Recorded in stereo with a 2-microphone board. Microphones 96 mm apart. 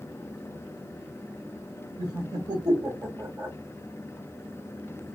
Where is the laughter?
45° right (ahead or behind), 1.8 m.